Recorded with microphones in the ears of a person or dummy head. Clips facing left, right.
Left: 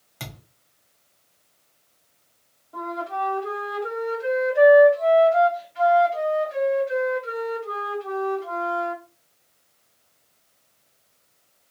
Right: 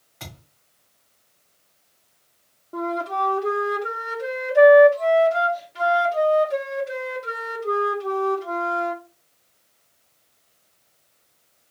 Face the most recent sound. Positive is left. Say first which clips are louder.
# right 4 dB
turn(degrees=-65)  # may be behind; listen again after turning